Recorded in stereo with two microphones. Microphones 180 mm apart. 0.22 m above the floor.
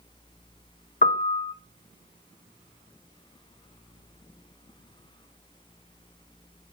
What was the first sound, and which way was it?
A piano, 55° left (ahead or behind).